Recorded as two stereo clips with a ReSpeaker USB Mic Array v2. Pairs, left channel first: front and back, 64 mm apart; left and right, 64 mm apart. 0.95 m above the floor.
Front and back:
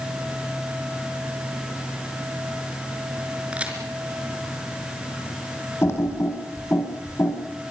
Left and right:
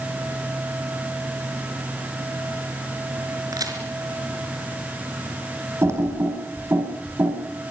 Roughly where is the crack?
Right.